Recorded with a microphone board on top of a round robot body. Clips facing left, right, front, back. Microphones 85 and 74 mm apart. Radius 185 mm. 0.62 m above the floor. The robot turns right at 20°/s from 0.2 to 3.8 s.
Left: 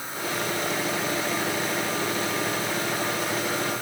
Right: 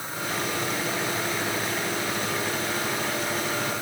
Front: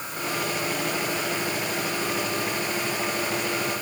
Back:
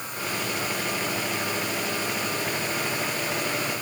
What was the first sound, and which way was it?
Only background noise.